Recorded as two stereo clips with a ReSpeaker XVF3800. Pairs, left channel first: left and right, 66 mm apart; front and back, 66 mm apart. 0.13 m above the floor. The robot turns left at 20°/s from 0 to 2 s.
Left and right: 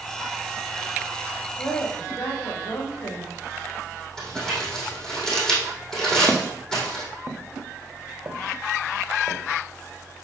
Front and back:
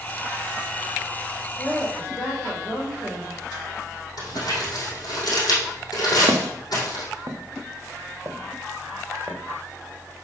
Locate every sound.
1.6 s a woman speaking: 75° left, 5 m; by 3.4 s 65° left, 5 m
4.2 s crumpling: 10° left, 4 m
6.3 s footsteps: 175° left, 0.9 m; by 9.4 s 120° right, 1.8 m